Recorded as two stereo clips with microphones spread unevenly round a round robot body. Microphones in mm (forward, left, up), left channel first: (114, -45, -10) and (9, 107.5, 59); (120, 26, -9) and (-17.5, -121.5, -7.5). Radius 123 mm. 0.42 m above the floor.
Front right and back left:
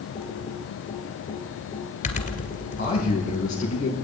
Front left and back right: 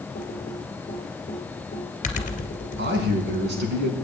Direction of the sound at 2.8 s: 100° right.